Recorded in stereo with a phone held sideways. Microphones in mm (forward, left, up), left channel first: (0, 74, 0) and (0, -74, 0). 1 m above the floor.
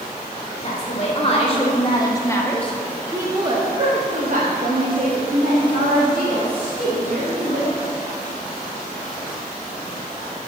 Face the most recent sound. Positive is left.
turn(degrees=-85)